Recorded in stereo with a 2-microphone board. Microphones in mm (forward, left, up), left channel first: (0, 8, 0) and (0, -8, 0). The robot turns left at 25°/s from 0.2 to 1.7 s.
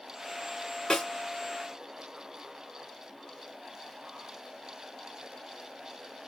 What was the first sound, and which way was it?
A snare drum, 60° left (ahead or behind).